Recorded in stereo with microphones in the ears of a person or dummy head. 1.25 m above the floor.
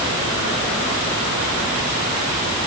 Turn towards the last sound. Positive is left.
No sound to turn to.